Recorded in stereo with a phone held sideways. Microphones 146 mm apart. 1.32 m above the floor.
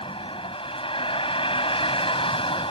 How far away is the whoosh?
No whoosh in this recording.